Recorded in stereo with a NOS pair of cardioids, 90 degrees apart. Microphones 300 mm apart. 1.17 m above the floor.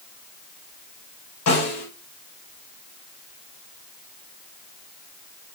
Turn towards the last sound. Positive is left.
turn(degrees=55)